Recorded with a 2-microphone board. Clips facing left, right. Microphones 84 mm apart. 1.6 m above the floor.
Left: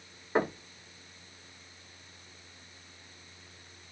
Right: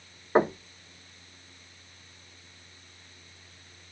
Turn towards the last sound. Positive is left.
turn(degrees=-25)  # may be behind; listen again after turning